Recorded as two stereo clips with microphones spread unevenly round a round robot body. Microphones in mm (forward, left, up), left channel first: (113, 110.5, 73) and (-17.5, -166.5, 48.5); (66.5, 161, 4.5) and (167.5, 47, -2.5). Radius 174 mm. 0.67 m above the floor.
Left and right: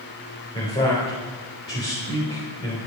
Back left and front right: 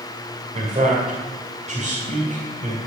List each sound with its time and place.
0.5 s a man speaking: 10° right, 3.5 m